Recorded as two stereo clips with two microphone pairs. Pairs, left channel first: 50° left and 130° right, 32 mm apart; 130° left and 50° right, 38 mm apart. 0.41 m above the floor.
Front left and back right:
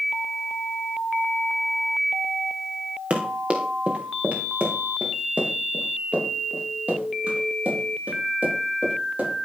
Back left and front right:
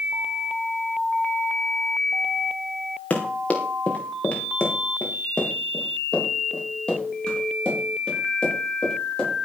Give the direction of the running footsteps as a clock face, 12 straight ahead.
6 o'clock.